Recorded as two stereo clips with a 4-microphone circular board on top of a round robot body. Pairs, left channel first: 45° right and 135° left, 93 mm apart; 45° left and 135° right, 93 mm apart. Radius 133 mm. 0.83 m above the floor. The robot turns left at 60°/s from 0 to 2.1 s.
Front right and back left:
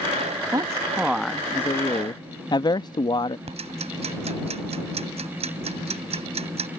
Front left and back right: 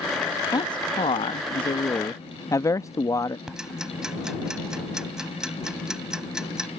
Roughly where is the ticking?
Behind left.